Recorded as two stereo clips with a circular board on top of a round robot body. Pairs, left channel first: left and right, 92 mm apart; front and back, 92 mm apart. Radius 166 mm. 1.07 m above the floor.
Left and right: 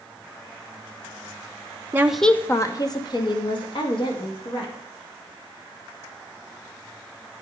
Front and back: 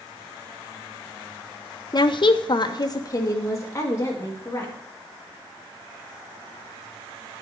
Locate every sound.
1.9 s a woman speaking: 30° right, 0.7 m; by 4.7 s 65° left, 3 m